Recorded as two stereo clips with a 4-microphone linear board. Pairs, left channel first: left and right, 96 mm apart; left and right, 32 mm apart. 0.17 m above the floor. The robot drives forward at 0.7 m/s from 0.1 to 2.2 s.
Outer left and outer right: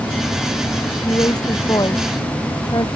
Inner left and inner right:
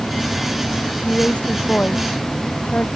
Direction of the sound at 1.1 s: 45° left (ahead or behind).